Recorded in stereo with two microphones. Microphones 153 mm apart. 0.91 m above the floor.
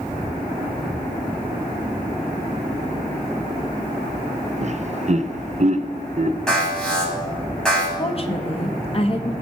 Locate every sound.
4.6 s laughter: 50° right (ahead or behind), 0.5 m
6.5 s an alarm: 5° left (ahead or behind), 5 m
8.0 s a woman speaking: 40° left (ahead or behind), 1.1 m